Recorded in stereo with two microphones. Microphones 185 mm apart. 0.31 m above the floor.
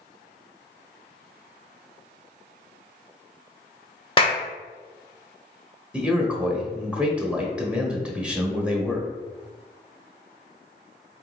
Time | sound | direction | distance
4.2 | a clap | 30° left (ahead or behind) | 0.8 m
5.9 | a man speaking | 5° right (ahead or behind) | 0.9 m